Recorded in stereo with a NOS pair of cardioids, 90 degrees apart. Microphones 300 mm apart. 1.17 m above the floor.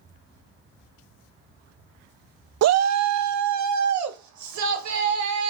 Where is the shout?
60° right, 0.6 m; by 5.5 s 70° right, 3.5 m.